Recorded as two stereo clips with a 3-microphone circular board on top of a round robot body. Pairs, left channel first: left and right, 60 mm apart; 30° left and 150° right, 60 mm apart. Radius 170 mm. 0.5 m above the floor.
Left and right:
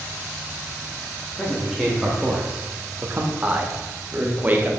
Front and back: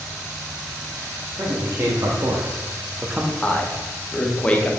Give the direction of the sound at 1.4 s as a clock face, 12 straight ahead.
6 o'clock.